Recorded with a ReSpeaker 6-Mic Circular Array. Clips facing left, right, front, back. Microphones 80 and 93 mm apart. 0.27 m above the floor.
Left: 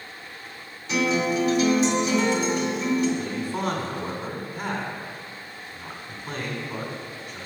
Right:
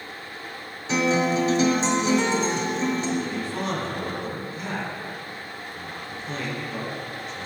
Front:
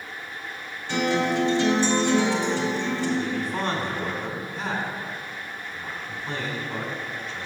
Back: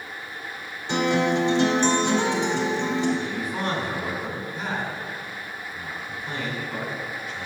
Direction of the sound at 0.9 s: 125° right.